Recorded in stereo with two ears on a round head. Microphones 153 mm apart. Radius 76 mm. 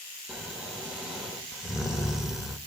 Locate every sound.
0.3 s snoring: 5° right (ahead or behind), 2 m